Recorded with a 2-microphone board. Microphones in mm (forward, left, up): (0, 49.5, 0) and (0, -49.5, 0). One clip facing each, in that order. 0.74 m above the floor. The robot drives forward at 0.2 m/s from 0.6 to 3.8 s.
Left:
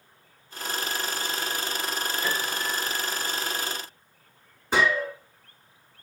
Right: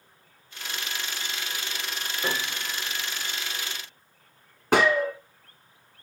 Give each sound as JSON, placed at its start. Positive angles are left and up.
{"t": 2.2, "sound": "a piano", "side_deg": -45, "distance_m": 3.5}
{"t": 4.7, "sound": "a gunshot", "side_deg": -65, "distance_m": 2.5}